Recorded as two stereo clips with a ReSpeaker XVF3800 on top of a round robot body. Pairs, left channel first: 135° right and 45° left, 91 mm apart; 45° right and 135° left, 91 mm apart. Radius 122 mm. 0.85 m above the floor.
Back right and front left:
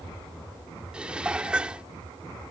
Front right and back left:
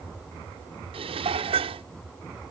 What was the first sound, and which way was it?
Dishes clattering, 125° left.